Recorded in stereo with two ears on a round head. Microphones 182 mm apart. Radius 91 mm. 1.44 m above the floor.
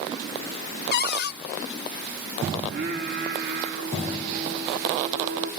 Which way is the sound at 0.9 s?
55° left (ahead or behind).